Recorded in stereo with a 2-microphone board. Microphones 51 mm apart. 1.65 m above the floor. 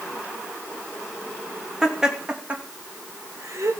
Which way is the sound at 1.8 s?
10° right (ahead or behind).